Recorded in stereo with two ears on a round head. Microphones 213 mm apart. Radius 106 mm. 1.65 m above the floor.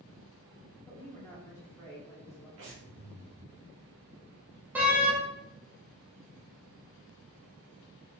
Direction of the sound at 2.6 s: 55° right (ahead or behind).